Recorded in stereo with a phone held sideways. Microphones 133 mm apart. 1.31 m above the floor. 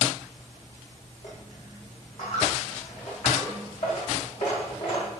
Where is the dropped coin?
60° left (ahead or behind), 5.5 m.